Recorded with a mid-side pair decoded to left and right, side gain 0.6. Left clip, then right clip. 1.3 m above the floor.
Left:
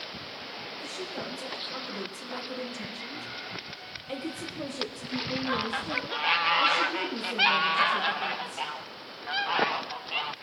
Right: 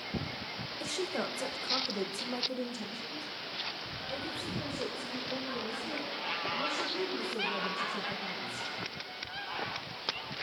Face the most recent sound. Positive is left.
turn(degrees=80)